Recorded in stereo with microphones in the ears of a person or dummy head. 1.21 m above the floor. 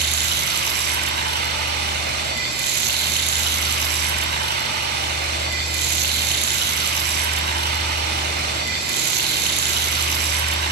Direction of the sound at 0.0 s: 50° right (ahead or behind).